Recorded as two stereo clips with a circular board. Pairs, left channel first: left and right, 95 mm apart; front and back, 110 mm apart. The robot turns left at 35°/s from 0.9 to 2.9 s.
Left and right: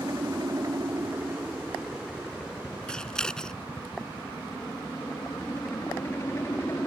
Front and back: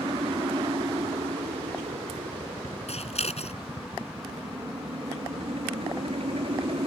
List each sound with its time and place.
0.0 s a helicopter: 135° right; by 6.9 s 155° left
2.9 s scissors: 10° left